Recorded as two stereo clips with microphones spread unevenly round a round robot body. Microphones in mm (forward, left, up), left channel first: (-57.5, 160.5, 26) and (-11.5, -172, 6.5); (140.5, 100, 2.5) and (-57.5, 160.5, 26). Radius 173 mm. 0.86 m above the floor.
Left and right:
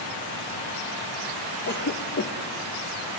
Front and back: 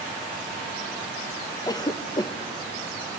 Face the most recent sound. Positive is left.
turn(degrees=45)